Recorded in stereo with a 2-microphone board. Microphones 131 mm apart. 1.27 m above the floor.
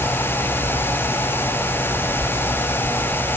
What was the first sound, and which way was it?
Only background noise.